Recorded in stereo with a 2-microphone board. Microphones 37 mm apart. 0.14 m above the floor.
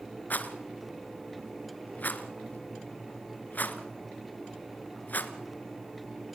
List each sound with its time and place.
0.3 s a rattle: 50° left (ahead or behind), 1.7 m